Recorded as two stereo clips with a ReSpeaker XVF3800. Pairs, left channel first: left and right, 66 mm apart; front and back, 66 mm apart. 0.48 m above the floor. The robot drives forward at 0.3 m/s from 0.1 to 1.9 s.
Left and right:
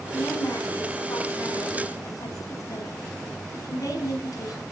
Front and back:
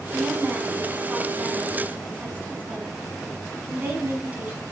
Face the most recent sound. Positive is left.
turn(degrees=115)